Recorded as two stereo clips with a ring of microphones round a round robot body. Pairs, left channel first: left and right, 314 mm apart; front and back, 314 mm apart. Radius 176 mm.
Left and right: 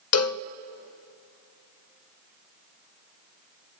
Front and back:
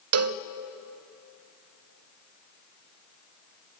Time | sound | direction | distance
0.1 | a cowbell | 135° left | 0.5 m